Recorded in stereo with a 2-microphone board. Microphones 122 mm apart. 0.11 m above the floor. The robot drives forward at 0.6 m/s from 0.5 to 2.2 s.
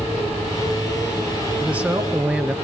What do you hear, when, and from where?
1.6 s a man speaking: 10° right (ahead or behind), 1.2 m